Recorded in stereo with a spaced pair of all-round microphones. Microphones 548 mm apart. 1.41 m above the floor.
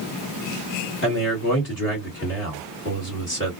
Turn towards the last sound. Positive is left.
turn(degrees=20)  # may be behind; listen again after turning